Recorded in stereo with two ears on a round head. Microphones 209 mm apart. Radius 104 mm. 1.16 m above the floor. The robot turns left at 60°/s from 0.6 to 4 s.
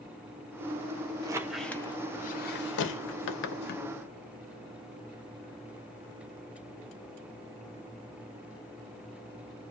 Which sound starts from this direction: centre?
A squeak, at 1.2 s.